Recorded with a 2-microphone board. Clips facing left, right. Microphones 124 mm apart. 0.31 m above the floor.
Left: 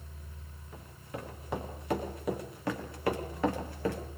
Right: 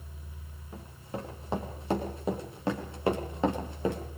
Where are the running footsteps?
30° right (ahead or behind), 9.5 m; by 4.0 s 20° right (ahead or behind), 6 m.